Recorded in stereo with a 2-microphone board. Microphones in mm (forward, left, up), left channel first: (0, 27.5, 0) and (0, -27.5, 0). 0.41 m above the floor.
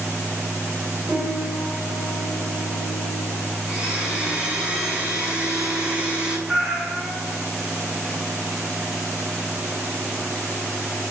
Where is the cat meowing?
10° right (ahead or behind), 1.7 m.